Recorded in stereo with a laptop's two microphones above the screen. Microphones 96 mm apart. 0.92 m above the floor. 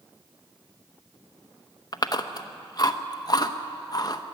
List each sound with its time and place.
1.9 s chewing: 40° left (ahead or behind), 0.9 m